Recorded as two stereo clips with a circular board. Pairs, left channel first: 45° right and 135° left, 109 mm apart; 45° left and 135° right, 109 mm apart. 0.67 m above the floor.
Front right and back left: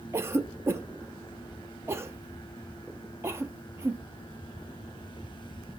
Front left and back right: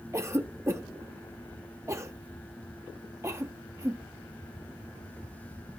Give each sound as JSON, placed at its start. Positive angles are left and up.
{"t": 0.1, "sound": "a cough", "azimuth_deg": -175, "distance_m": 0.6}